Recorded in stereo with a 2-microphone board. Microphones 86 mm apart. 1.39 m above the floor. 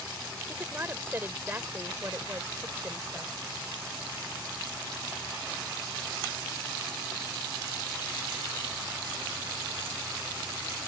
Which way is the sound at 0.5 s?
25° right (ahead or behind).